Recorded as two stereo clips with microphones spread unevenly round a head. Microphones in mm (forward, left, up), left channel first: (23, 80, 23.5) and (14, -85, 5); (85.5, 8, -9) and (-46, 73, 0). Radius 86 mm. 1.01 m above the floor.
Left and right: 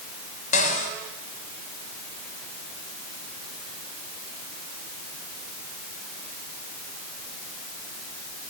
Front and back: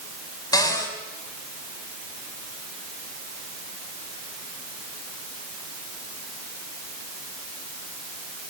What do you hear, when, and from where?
0.5 s a cupboard door: 40° left, 6 m